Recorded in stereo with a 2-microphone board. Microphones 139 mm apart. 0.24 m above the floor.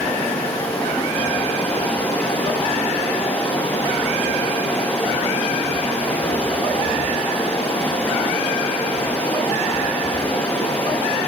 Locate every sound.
0.0 s running water: 10° left (ahead or behind), 4.5 m